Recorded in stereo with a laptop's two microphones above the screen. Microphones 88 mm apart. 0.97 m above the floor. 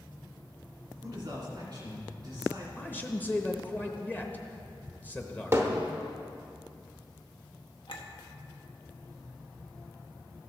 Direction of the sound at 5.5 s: 30° right (ahead or behind).